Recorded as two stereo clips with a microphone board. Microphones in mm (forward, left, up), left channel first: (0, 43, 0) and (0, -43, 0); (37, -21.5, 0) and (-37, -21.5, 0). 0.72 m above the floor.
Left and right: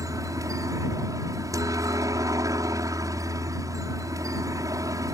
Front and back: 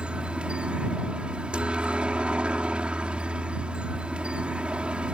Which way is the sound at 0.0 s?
110° right.